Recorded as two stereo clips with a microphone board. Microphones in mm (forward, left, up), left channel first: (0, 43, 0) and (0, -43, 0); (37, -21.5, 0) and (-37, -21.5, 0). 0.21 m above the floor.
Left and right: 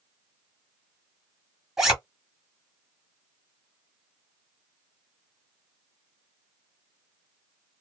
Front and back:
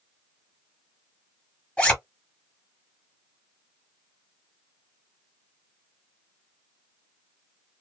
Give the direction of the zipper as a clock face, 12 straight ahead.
1 o'clock.